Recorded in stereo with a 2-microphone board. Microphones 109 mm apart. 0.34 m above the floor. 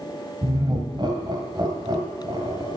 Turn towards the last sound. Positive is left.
turn(degrees=-40)  # may be behind; listen again after turning